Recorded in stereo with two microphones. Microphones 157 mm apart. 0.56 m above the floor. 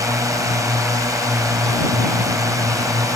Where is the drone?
20° right (ahead or behind).